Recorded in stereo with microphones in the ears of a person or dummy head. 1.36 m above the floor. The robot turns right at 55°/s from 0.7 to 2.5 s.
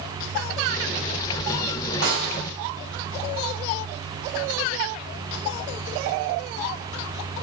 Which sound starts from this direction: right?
A snare drum, at 2.0 s.